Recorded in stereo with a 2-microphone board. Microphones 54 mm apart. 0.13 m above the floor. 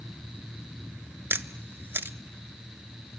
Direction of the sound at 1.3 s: 45° right (ahead or behind).